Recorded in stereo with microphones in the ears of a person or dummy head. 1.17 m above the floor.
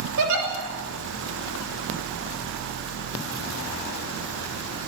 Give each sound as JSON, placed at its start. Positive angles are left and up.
{"t": 0.2, "sound": "a giggle", "side_deg": -70, "distance_m": 5.5}